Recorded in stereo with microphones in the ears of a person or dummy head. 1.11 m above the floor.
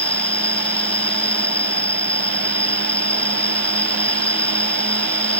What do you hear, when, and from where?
0.0 s an insect: 5° left (ahead or behind)